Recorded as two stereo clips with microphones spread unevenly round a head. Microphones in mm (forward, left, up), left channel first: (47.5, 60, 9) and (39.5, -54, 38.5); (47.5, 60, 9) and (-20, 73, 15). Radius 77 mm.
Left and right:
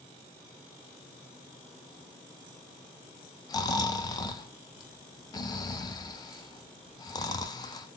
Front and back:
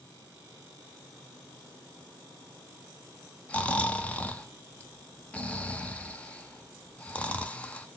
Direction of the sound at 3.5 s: 55° left.